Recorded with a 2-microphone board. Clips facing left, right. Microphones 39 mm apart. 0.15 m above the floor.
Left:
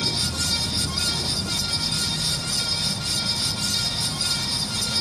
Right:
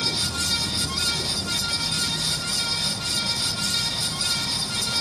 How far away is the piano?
I don't hear a piano.